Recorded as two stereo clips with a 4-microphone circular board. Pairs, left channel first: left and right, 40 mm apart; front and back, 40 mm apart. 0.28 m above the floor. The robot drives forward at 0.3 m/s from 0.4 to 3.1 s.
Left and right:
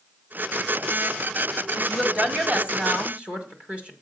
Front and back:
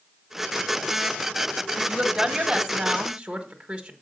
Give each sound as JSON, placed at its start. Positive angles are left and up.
{"t": 1.8, "sound": "a woman speaking", "azimuth_deg": -120, "distance_m": 1.6}